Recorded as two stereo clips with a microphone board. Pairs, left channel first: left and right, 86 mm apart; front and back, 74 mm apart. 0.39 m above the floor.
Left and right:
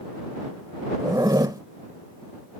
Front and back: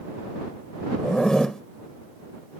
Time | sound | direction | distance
1.0 | a zipper | 80° right | ?